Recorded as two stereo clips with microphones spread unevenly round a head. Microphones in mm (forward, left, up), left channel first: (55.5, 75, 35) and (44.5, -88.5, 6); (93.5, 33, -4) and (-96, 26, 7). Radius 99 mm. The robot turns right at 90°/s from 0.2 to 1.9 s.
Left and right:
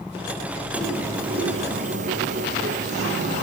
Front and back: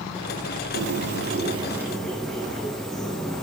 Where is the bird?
170° left, 1.1 m; by 3.4 s 85° right, 1.1 m.